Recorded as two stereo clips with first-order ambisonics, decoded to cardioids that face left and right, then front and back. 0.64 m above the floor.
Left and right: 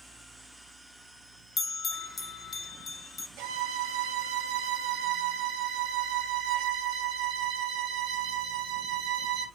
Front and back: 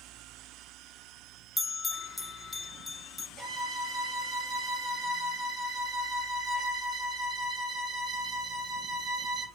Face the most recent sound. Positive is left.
turn(degrees=-125)